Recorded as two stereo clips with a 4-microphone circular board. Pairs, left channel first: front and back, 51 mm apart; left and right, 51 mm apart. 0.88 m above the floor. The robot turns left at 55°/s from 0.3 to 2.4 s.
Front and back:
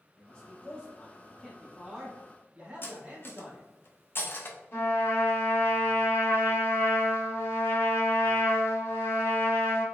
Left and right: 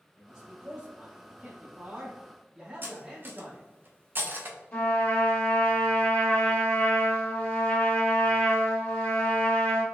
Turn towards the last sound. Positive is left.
turn(degrees=30)